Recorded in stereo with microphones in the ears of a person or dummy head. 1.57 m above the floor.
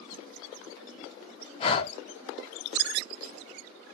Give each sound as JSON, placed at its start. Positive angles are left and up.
{"t": 1.6, "sound": "breathing", "side_deg": 40, "distance_m": 0.6}